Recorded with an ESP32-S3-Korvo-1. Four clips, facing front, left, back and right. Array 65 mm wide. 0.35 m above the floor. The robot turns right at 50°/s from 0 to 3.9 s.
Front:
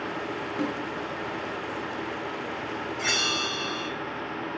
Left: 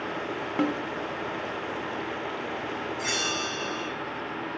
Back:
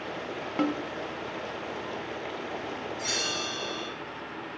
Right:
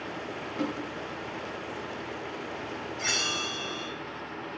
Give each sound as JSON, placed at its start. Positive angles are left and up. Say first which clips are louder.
{"t": 0.6, "sound": "a snare drum", "louder": "left 6 dB, back 3 dB", "azimuth_deg": 130, "distance_m": 0.9}
{"t": 3.0, "sound": "a bell", "louder": "even, front 7 dB", "azimuth_deg": -10, "distance_m": 1.0}